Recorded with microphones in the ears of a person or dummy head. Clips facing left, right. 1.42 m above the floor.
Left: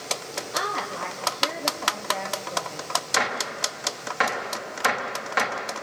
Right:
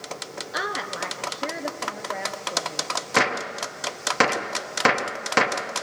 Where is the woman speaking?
10° right (ahead or behind), 1.0 m.